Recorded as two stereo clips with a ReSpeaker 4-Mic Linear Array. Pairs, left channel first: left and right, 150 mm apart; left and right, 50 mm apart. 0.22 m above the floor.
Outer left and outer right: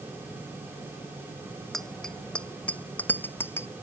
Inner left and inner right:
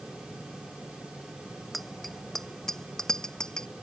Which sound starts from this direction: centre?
A bicycle bell, at 1.7 s.